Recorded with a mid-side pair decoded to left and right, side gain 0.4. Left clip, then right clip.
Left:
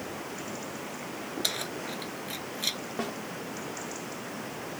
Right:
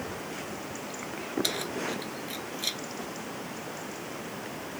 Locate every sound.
1.4 s keys jangling: 10° left
3.0 s a snare drum: 70° left